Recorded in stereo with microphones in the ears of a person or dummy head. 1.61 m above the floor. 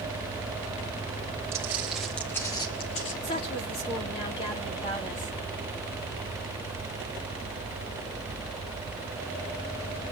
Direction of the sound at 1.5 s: 15° right (ahead or behind).